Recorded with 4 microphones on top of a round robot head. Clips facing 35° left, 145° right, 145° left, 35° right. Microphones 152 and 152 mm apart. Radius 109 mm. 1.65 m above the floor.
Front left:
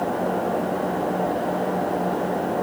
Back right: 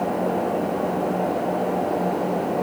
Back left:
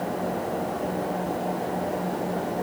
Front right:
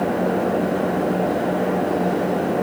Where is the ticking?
No ticking in this recording.